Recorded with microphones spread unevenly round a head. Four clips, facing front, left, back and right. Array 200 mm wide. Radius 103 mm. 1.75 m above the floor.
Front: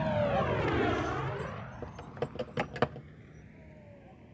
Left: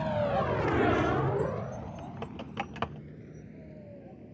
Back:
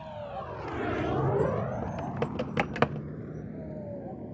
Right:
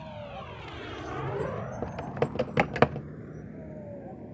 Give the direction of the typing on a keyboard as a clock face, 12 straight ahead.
3 o'clock.